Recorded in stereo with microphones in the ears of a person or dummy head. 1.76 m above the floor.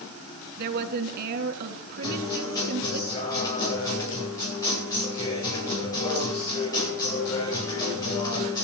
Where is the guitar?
20° left (ahead or behind), 9.5 m.